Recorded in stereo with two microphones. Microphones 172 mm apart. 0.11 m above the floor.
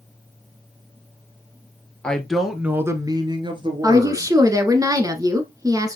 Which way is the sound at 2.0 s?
5° left (ahead or behind).